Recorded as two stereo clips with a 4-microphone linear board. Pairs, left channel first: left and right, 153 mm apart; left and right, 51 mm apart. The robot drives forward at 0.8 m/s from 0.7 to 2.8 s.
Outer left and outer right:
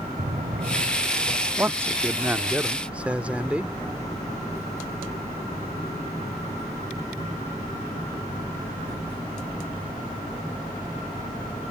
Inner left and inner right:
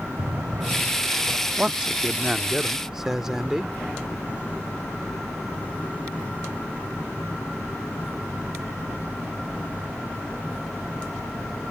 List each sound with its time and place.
0.2 s a drawer: 75° right (ahead or behind); by 1.4 s 80° right
1.6 s a man speaking: 15° right (ahead or behind); by 3.8 s 10° right (ahead or behind)